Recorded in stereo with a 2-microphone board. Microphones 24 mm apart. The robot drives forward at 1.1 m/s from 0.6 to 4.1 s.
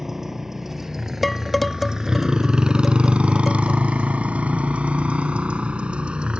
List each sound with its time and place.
0.0 s a motorcycle: 15° right (ahead or behind); by 6.4 s 50° right (ahead or behind)
1.2 s dishes clattering: centre (ahead or behind)